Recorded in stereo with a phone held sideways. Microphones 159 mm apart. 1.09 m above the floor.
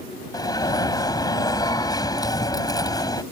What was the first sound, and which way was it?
An alarm, 25° left (ahead or behind).